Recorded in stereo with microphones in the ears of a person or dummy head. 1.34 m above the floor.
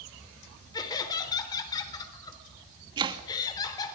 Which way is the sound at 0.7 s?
20° left (ahead or behind).